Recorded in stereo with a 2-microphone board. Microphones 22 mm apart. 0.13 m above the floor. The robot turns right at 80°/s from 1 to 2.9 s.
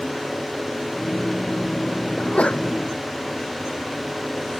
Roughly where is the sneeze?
Left.